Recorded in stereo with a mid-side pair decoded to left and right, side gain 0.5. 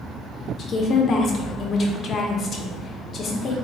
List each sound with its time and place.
0.6 s a woman speaking: 50° left, 0.6 m